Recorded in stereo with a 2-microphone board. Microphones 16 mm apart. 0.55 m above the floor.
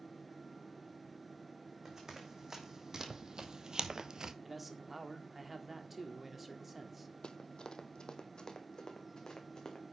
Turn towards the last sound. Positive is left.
turn(degrees=40)  # may be behind; listen again after turning